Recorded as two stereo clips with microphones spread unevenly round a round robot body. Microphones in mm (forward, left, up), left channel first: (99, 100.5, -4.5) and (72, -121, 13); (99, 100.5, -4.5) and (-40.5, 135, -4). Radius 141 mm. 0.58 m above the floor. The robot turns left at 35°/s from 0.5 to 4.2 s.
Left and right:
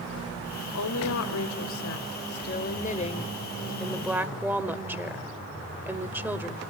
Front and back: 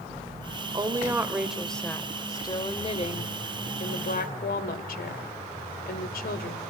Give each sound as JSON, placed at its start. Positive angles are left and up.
{"t": 0.7, "sound": "a woman speaking", "azimuth_deg": 105, "distance_m": 2.0}